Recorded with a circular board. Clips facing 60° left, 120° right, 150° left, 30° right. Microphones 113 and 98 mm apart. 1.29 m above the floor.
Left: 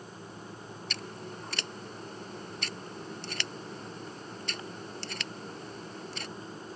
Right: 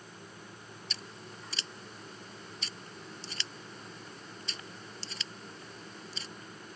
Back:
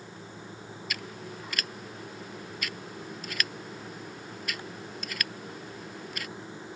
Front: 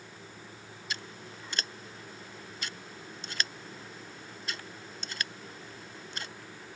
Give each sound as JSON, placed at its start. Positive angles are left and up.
{"t": 0.9, "sound": "scissors", "azimuth_deg": 30}